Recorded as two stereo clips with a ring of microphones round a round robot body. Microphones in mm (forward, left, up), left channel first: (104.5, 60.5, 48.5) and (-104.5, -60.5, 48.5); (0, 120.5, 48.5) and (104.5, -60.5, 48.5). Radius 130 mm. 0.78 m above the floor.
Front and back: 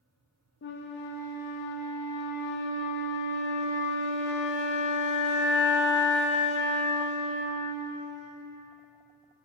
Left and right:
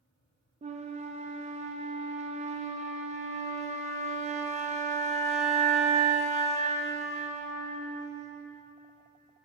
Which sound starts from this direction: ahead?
A flute, at 0.6 s.